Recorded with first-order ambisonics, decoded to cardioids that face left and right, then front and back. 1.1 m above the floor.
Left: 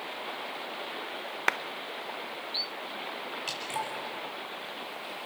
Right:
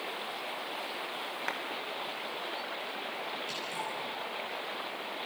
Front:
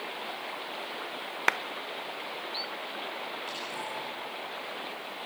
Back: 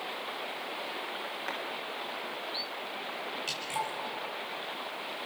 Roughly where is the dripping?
Behind left.